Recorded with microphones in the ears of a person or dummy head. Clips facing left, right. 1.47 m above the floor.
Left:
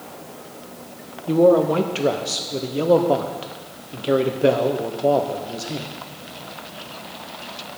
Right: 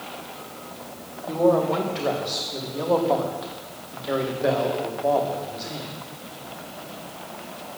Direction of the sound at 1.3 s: 35° left (ahead or behind).